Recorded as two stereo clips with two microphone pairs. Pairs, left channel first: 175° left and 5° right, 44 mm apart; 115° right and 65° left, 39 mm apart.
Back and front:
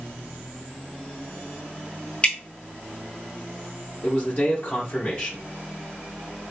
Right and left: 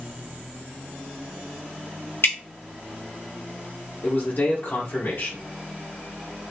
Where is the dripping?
120° right, 0.9 m.